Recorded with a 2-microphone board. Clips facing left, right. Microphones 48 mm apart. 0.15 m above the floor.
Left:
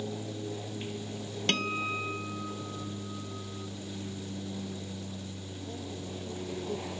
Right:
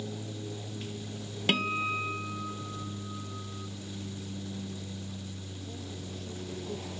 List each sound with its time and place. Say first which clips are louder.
0.0 s an aircraft: left 2 dB; 20° left (ahead or behind)
1.5 s a guitar: right 2 dB; 10° right (ahead or behind)